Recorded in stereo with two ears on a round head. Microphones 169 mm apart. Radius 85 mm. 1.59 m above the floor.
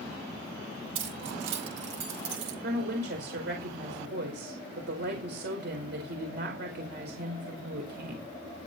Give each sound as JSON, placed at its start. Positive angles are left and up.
{"t": 0.9, "sound": "keys jangling", "side_deg": -75, "distance_m": 7.0}
{"t": 2.6, "sound": "a woman speaking", "side_deg": -60, "distance_m": 5.0}